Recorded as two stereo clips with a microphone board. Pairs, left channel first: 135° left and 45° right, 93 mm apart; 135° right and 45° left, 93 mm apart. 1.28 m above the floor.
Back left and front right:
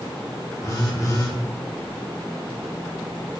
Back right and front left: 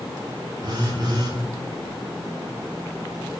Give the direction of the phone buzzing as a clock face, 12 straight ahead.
9 o'clock.